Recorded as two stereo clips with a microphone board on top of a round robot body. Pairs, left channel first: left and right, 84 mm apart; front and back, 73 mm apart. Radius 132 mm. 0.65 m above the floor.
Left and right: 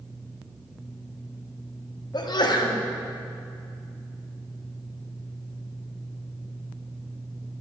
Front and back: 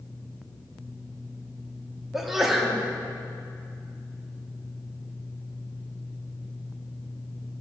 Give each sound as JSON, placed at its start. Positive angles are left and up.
{"t": 2.1, "sound": "a sneeze", "azimuth_deg": 95, "distance_m": 2.0}